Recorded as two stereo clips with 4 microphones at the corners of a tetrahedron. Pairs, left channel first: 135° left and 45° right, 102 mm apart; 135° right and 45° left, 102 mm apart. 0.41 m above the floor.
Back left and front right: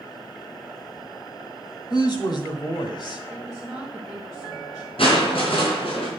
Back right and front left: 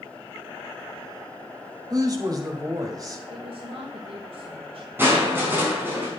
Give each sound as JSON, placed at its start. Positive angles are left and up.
{"t": 1.9, "sound": "a woman speaking", "azimuth_deg": 95, "distance_m": 2.0}
{"t": 3.3, "sound": "a woman speaking", "azimuth_deg": 40, "distance_m": 1.9}
{"t": 5.0, "sound": "crushing", "azimuth_deg": 115, "distance_m": 4.5}